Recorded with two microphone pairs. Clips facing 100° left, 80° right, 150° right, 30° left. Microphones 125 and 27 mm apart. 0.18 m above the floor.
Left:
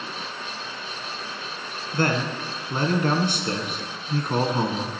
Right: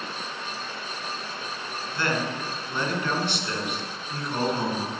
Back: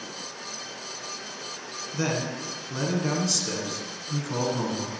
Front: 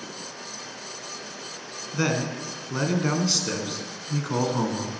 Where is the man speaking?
85° left, 1.5 m.